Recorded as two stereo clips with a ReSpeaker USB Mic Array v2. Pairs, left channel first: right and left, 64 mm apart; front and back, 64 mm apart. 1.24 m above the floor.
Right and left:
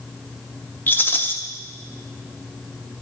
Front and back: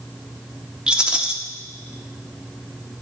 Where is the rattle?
115° right, 0.8 m.